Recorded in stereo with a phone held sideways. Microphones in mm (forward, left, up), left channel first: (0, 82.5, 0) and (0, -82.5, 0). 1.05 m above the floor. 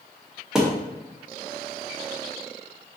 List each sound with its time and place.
0.6 s a thud: 5° right (ahead or behind), 0.5 m